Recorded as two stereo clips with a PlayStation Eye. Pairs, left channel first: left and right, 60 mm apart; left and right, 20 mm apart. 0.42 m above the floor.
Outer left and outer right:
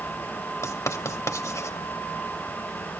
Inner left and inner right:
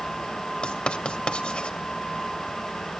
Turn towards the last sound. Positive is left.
turn(degrees=60)  # may be behind; listen again after turning